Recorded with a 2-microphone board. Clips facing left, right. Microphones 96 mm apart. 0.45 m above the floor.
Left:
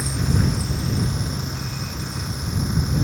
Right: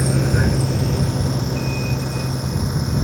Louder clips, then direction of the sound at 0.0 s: Right 4 dB; 65° right (ahead or behind).